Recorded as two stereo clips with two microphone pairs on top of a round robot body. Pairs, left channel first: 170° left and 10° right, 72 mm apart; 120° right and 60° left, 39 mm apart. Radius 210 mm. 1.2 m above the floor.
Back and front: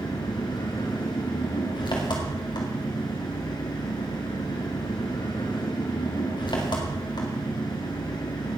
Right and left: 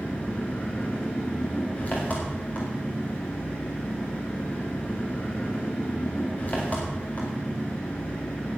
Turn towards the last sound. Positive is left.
turn(degrees=-175)